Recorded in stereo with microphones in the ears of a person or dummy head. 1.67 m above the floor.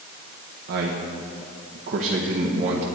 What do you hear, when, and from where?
0.7 s a man speaking: 60° right (ahead or behind), 1.2 m; by 2.9 s 35° right (ahead or behind), 1.9 m